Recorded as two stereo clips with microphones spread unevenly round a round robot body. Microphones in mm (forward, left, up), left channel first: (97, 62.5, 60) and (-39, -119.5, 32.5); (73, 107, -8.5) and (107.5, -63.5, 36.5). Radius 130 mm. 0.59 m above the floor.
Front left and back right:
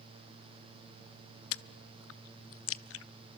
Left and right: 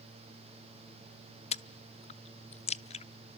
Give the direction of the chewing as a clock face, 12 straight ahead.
10 o'clock.